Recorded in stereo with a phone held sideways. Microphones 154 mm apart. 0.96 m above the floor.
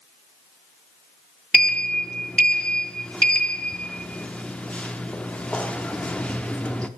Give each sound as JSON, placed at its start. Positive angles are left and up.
{"t": 1.5, "sound": "a sliding door", "side_deg": 5, "distance_m": 0.5}